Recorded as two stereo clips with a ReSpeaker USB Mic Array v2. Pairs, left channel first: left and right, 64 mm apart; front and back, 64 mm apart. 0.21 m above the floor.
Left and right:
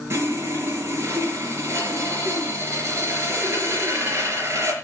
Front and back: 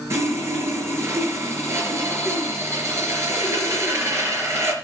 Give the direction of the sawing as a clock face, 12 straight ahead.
5 o'clock.